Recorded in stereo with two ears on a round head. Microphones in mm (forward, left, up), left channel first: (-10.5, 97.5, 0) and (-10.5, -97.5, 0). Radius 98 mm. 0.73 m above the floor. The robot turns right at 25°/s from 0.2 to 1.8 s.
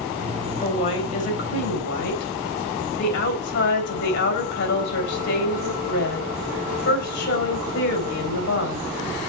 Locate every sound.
0.6 s a woman speaking: 25° left (ahead or behind), 3.5 m; by 8.8 s 50° left (ahead or behind), 3.5 m